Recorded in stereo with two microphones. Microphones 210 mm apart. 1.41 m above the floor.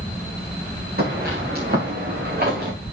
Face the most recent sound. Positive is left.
turn(degrees=-50)  # may be behind; listen again after turning